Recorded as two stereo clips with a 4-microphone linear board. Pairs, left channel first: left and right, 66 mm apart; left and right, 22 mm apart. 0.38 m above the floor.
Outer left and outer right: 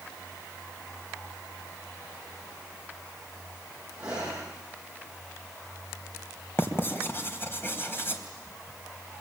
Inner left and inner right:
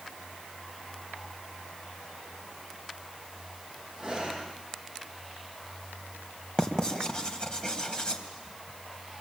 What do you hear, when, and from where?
4.0 s breathing: 15° right (ahead or behind), 9 m
6.6 s writing: 35° left (ahead or behind), 3 m